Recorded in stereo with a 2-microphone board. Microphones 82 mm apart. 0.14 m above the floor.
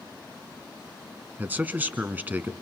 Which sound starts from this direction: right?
A man speaking, at 1.4 s.